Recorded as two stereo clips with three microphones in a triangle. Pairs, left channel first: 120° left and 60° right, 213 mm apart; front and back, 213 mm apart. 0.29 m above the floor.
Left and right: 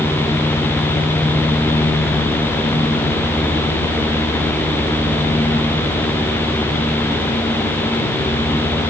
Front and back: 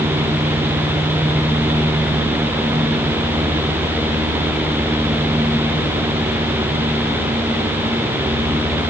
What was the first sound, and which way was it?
Only background noise.